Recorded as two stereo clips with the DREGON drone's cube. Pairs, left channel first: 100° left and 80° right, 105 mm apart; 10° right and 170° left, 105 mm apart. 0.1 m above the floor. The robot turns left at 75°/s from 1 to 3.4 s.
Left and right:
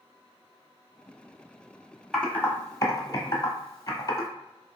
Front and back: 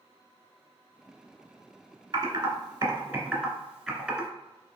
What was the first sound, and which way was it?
Typing on a keyboard, 175° right.